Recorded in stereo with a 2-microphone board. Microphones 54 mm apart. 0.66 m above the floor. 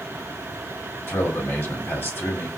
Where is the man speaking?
50° left (ahead or behind), 1.7 m.